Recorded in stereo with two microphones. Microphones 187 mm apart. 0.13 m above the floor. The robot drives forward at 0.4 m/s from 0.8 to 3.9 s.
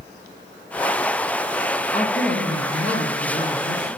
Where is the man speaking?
55° left (ahead or behind), 2 m; by 3.9 s 50° left (ahead or behind), 2 m.